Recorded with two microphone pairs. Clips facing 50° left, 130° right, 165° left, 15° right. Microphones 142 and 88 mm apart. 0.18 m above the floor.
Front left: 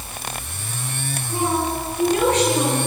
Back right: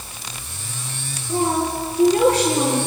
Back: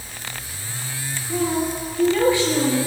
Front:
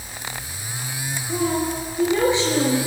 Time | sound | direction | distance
1.3 | a woman speaking | 85° right | 4 m